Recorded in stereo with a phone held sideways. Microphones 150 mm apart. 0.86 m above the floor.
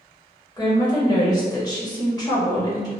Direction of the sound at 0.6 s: 25° left (ahead or behind).